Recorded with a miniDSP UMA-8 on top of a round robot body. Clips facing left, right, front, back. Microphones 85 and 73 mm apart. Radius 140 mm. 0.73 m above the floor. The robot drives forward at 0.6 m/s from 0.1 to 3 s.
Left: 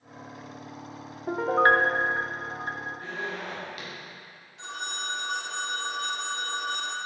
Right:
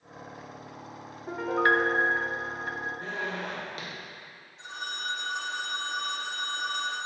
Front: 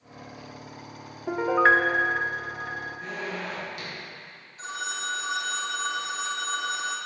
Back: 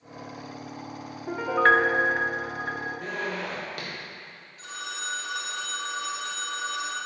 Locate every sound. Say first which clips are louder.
1.3 s a piano: left 4 dB, front 1 dB; 50° left, 0.7 m; by 3.3 s 155° left, 1.0 m
3.0 s a zipper: right 1 dB, back 2 dB; 145° right, 2.5 m
4.6 s a phone ringing: left 1 dB, front 4 dB; 65° left, 1.3 m